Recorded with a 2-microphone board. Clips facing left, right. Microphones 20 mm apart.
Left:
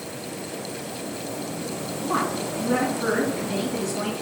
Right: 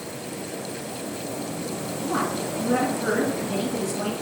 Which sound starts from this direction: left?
A woman speaking, at 2.0 s.